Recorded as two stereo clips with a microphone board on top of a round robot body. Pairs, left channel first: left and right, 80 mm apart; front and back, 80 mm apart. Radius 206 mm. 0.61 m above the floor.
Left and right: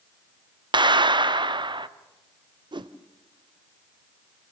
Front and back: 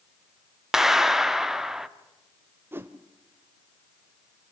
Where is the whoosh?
115° right, 1.2 m.